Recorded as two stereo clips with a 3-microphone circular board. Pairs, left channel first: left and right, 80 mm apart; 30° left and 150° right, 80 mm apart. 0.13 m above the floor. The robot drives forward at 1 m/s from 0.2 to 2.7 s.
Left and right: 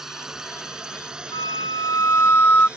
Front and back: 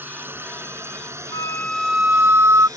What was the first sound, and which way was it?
A drone, 170° right.